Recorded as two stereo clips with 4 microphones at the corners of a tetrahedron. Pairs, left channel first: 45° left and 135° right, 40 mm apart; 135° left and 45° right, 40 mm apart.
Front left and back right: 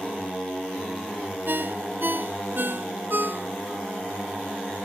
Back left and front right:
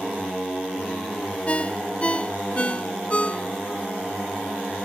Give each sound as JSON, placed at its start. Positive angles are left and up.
{"t": 1.5, "sound": "a ringtone", "azimuth_deg": -165}